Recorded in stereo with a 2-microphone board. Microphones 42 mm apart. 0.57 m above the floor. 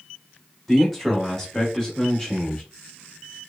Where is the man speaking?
5° left (ahead or behind), 1.1 m; by 2.7 s 15° left (ahead or behind), 1.1 m.